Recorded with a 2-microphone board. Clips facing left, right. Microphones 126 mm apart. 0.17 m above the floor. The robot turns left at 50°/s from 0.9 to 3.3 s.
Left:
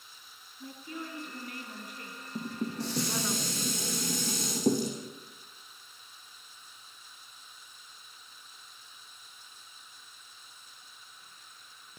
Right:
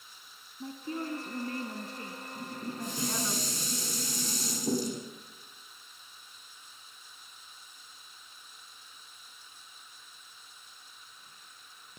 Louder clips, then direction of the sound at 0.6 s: Right 5 dB; 75° right.